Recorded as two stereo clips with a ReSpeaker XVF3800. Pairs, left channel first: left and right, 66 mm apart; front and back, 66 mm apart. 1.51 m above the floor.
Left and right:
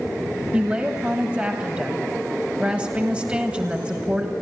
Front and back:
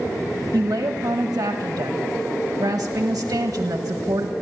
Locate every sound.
0.5 s a woman speaking: 160° right, 1.7 m